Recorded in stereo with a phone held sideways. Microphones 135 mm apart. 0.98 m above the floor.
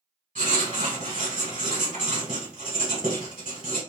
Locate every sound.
0.3 s writing: 75° right (ahead or behind), 1.7 m